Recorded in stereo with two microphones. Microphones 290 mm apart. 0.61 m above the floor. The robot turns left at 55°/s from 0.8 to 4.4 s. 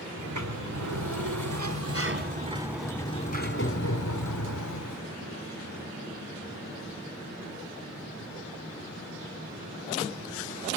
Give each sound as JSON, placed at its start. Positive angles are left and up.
{"t": 0.2, "sound": "a sliding door", "azimuth_deg": -70, "distance_m": 1.9}